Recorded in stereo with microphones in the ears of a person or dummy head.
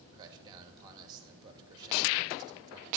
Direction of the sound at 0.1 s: 25° right (ahead or behind).